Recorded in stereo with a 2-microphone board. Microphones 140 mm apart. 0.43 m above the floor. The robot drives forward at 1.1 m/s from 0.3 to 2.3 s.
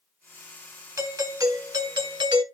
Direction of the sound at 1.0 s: 20° right (ahead or behind).